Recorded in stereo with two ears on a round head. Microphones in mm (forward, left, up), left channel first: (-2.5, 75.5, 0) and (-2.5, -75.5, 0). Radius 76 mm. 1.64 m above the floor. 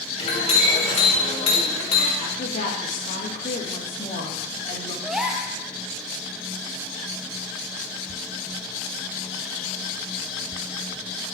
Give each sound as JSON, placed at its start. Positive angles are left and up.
{"t": 0.2, "sound": "a clink", "side_deg": 35, "distance_m": 2.5}
{"t": 2.2, "sound": "a woman speaking", "side_deg": 45, "distance_m": 3.0}
{"t": 5.0, "sound": "a gasp", "side_deg": -5, "distance_m": 0.9}